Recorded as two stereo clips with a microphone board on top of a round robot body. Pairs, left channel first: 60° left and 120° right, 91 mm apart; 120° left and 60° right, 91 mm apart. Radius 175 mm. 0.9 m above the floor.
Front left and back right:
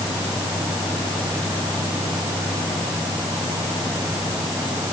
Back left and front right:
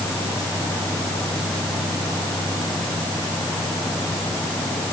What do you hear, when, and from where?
Only background noise.